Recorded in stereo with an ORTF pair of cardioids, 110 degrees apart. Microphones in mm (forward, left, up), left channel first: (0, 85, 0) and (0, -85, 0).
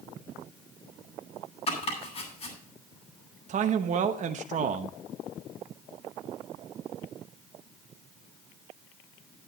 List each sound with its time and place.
1.7 s chopping: 40° left, 7.5 m
3.5 s a man speaking: 45° right, 0.9 m